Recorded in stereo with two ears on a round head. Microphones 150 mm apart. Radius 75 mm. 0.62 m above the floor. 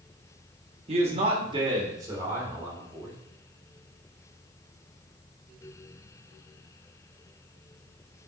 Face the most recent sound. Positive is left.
turn(degrees=-10)  # may be behind; listen again after turning